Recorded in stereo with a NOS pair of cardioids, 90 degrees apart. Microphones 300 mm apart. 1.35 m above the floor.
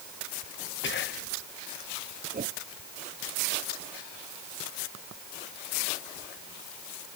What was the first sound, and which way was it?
Whispering, 40° left.